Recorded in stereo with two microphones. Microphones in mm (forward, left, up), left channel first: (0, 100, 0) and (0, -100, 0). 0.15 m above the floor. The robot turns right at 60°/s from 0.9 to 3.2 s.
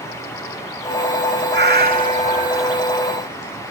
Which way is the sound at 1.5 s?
85° right.